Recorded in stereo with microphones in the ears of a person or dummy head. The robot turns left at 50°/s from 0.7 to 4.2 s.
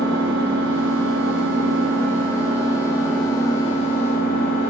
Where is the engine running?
60° right, 1.0 m; by 4.7 s 125° left, 1.0 m.